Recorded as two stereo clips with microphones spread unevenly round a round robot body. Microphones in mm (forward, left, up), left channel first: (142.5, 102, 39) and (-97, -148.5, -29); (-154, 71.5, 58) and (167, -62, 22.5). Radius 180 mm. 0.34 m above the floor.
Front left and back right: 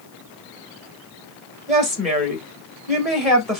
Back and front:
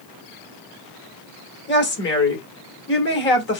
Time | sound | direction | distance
1.7 | a woman speaking | 165° left | 1.2 m